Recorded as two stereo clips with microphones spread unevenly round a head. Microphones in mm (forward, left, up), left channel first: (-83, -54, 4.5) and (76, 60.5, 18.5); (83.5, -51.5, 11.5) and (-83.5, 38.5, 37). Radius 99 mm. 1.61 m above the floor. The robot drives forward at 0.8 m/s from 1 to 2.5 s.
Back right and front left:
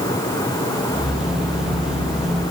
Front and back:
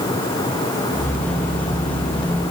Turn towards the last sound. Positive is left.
No sound to turn to.